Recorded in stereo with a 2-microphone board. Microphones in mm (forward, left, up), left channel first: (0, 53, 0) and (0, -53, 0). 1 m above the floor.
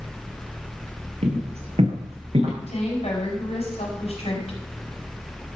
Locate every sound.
1.2 s footsteps: 75° right (ahead or behind), 5 m; by 2.5 s 70° right (ahead or behind), 6.5 m
2.6 s a woman speaking: 80° left, 5 m